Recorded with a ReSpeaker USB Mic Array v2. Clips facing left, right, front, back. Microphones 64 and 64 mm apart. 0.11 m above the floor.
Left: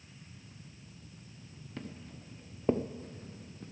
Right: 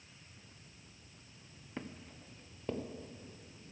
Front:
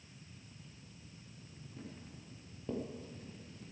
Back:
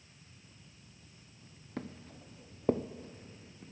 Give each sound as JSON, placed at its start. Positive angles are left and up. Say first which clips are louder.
{"t": 1.8, "sound": "footsteps", "louder": "left 1 dB, back 8 dB", "azimuth_deg": -160, "distance_m": 1.1}